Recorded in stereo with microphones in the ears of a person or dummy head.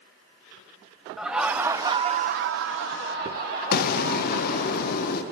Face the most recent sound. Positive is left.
turn(degrees=50)  # may be behind; listen again after turning